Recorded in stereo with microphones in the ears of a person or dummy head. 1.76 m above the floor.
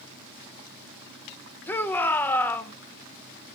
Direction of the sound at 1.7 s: 10° left (ahead or behind).